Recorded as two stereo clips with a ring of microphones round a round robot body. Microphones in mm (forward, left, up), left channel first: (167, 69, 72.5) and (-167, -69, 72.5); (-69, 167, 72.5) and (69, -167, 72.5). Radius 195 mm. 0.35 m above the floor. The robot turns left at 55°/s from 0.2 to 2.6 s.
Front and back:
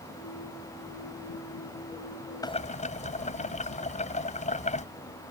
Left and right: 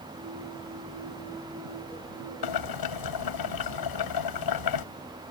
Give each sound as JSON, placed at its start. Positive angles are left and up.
{"t": 2.4, "sound": "boiling", "azimuth_deg": 100}